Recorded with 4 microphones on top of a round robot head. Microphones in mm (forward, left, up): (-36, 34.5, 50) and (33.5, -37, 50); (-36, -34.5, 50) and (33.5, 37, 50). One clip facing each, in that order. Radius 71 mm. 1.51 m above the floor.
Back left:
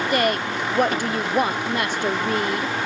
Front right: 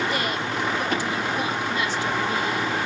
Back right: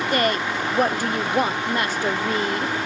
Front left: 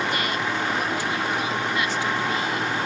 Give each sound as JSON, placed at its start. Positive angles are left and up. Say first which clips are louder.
{"t": 0.1, "sound": "a woman speaking", "louder": "back left 5 dB, back right 4 dB", "azimuth_deg": 175, "distance_m": 0.6}